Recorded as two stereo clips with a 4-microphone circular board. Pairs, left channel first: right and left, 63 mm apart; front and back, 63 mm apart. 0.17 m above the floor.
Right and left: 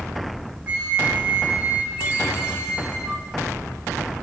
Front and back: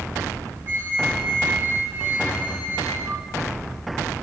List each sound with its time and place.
0.7 s a flute: 155° left, 0.8 m